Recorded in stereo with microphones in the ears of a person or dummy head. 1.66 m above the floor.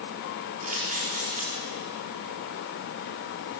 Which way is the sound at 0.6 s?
50° right (ahead or behind).